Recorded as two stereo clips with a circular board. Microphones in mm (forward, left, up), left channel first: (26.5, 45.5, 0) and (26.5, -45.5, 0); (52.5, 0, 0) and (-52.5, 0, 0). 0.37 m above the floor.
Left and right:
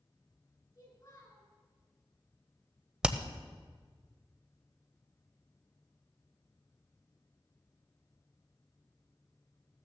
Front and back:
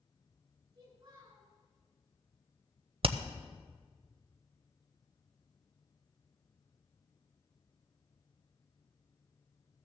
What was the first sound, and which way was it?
A child speaking, 130° left.